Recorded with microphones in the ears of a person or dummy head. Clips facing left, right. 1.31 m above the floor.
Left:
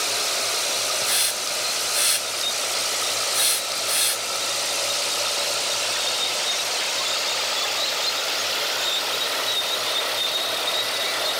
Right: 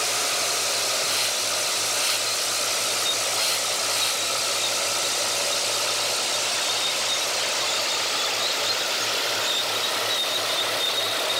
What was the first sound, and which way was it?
A hiss, 35° left (ahead or behind).